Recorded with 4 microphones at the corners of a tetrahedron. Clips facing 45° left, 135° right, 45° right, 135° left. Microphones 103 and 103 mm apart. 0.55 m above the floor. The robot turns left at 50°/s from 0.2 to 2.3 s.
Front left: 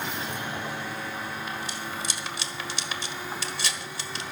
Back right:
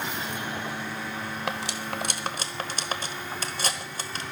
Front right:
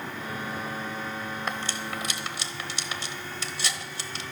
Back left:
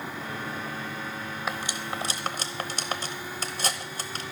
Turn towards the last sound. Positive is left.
turn(degrees=180)